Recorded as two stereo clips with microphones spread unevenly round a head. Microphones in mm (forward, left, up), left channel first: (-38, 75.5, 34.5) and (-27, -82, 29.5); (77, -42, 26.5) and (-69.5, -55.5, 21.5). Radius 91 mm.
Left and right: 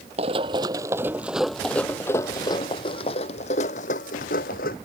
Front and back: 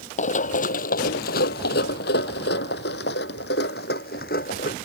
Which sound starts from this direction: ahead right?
Running footsteps, at 0.2 s.